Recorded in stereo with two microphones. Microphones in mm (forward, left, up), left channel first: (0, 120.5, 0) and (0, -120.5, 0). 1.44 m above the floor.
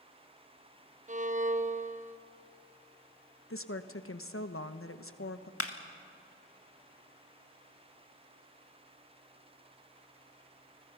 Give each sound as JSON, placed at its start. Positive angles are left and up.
{"t": 1.1, "sound": "a violin", "side_deg": -35, "distance_m": 0.9}
{"t": 3.5, "sound": "a woman speaking", "side_deg": 70, "distance_m": 1.1}
{"t": 5.6, "sound": "a clap", "side_deg": 80, "distance_m": 1.7}